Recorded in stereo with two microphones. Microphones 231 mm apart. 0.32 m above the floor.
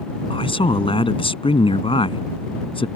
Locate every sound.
0.3 s a man speaking: 25° left (ahead or behind)